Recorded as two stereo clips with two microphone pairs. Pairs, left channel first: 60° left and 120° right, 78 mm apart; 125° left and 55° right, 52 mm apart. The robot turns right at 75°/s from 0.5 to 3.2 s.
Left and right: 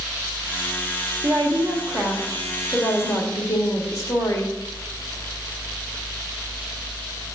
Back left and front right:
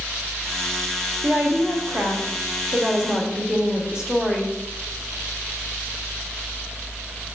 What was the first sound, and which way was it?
A woman speaking, 125° right.